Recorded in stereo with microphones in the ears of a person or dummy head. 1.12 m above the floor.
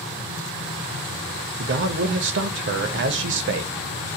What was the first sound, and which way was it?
A man speaking, 60° right (ahead or behind).